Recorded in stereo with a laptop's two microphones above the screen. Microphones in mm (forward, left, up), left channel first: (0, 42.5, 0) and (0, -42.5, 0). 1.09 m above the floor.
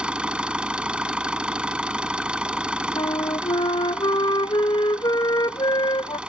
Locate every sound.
0.0 s an engine running: 10° right (ahead or behind)
3.0 s a flute: 65° left (ahead or behind)